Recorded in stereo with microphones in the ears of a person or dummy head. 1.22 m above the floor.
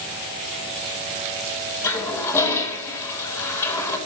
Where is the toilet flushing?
15° left (ahead or behind), 0.9 m.